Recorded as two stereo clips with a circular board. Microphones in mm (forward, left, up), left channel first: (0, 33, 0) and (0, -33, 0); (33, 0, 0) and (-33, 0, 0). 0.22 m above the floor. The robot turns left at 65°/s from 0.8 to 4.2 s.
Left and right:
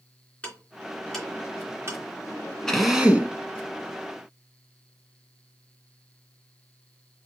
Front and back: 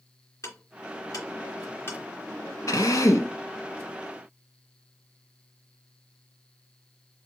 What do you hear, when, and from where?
0.4 s ticking: 25° left, 2.5 m; by 2.0 s 50° right, 2.5 m
2.7 s a drill: 5° left, 1.1 m; by 3.3 s 35° right, 1.1 m